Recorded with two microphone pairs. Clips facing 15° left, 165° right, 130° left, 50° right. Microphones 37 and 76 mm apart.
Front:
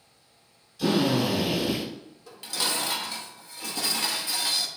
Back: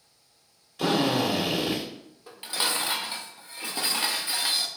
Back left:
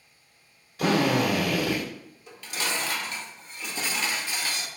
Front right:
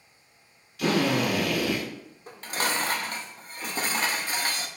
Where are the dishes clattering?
95° right, 0.9 m.